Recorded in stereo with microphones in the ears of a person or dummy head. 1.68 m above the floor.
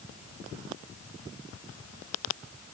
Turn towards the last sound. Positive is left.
No sound to turn to.